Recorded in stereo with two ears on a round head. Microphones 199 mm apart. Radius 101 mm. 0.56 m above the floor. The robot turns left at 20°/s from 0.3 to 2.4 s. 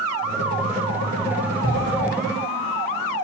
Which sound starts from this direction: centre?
A cupboard door, at 1.6 s.